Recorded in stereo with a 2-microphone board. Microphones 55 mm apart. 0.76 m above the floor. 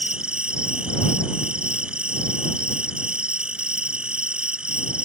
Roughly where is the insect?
Centre.